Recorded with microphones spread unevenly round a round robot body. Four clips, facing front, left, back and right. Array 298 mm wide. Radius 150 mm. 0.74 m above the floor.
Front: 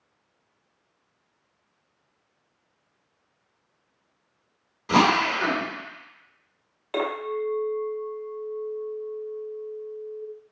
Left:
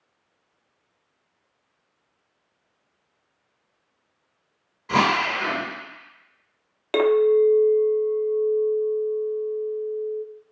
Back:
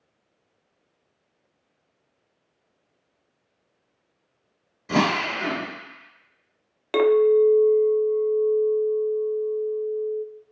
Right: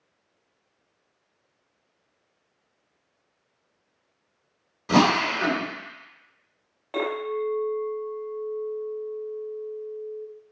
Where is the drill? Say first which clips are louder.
Right 1 dB, front 3 dB; 80° right, 1.2 m.